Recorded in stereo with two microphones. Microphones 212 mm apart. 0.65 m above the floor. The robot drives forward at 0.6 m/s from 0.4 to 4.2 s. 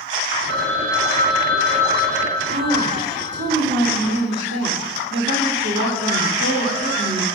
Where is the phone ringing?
70° right (ahead or behind), 2 m; by 3.5 s 40° right (ahead or behind), 3 m.